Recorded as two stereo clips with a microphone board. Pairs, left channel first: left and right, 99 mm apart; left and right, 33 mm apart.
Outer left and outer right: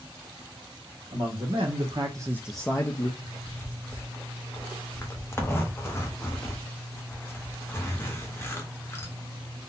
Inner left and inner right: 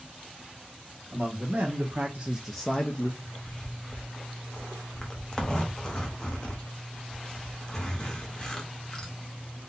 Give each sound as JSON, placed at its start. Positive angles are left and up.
{"t": 1.1, "sound": "a man speaking", "side_deg": -70, "distance_m": 1.4}
{"t": 3.2, "sound": "a zipper", "side_deg": 25, "distance_m": 0.9}